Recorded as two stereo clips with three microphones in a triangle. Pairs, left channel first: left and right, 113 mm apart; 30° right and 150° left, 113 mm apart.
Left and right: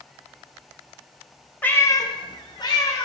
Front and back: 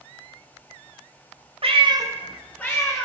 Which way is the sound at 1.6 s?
165° left.